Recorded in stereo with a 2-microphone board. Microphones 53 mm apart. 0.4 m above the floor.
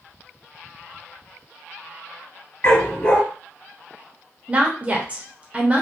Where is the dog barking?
30° left (ahead or behind), 1.7 m.